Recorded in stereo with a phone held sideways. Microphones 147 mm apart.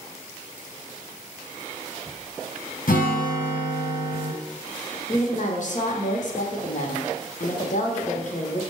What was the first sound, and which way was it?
A guitar, 80° left.